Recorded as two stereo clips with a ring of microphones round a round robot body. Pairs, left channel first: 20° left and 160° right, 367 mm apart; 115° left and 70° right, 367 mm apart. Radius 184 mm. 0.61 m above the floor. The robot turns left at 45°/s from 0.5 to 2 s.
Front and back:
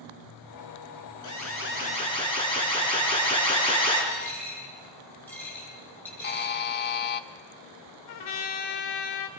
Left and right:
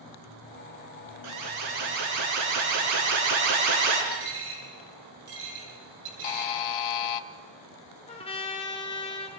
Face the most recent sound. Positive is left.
turn(degrees=40)